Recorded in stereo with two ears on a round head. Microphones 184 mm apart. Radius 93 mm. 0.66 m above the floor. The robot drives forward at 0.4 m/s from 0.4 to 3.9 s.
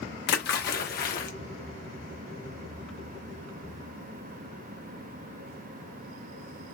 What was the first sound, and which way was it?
A splash, 50° left (ahead or behind).